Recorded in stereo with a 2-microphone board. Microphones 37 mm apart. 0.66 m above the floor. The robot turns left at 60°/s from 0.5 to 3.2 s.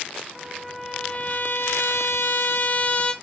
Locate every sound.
0.3 s a trumpet: 170° right, 1.0 m; by 3.1 s 30° left, 1.0 m